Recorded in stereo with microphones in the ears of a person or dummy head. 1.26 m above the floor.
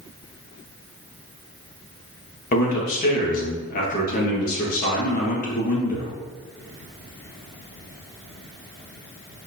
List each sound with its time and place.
2.5 s a man speaking: 45° left (ahead or behind), 1.5 m